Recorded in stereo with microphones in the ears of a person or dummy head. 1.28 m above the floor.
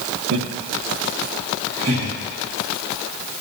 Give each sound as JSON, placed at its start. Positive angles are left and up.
{"t": 0.3, "sound": "laughter", "side_deg": -60, "distance_m": 0.8}